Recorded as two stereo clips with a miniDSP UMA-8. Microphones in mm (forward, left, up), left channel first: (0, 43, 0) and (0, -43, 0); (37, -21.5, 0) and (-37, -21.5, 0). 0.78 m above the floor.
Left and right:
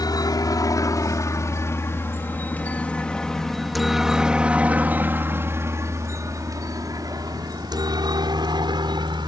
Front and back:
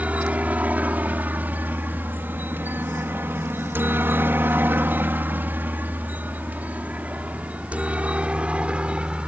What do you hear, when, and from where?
0.0 s a helicopter: 110° left; by 9.3 s 105° right